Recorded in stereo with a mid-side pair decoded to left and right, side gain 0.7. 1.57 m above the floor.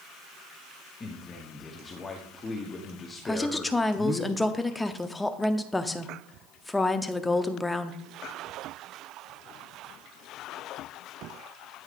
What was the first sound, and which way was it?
A man speaking, 25° left.